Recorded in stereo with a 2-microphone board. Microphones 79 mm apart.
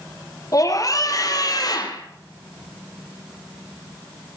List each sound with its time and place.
0.5 s a scream: 45° left (ahead or behind), 2.5 m; by 2.0 s 55° left (ahead or behind), 3 m